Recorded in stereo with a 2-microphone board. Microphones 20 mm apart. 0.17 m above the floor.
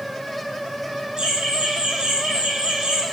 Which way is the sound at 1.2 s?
45° right (ahead or behind).